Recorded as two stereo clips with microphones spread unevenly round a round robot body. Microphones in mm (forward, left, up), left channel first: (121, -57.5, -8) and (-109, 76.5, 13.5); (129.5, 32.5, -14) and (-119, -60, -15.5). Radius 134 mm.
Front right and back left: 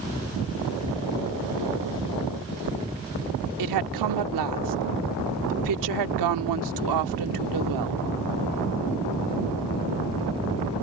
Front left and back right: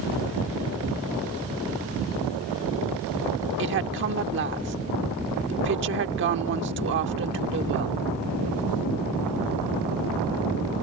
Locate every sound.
3.6 s a woman speaking: 155° left